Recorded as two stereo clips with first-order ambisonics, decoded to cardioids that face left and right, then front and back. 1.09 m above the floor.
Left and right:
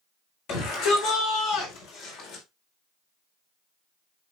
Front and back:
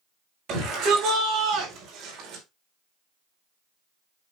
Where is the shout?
125° left, 6 m; by 2.5 s 130° left, 4.5 m.